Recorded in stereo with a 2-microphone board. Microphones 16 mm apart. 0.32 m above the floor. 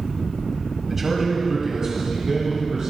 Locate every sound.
0.9 s a man speaking: 15° right (ahead or behind), 1.3 m; by 2.9 s 45° right (ahead or behind), 3 m